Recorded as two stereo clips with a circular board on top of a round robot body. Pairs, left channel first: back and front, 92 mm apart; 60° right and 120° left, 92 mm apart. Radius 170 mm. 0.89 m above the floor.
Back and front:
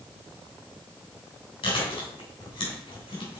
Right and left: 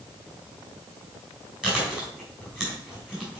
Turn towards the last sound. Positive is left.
turn(degrees=-160)